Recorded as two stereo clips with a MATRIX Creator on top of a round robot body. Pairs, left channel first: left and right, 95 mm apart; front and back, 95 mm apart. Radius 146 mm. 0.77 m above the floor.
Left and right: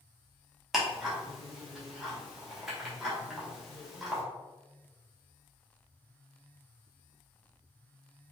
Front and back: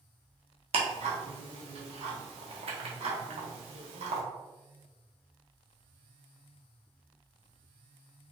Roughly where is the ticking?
Behind.